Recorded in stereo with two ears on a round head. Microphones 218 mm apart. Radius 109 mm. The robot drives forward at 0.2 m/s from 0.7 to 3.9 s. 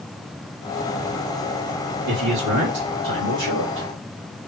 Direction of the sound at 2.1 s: 75° right (ahead or behind).